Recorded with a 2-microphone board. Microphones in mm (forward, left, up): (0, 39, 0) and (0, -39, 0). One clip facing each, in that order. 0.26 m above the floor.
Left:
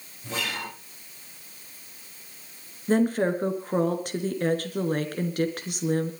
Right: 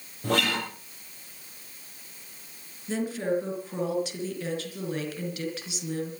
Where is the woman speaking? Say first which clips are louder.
Left 6 dB; 45° left (ahead or behind), 4 m.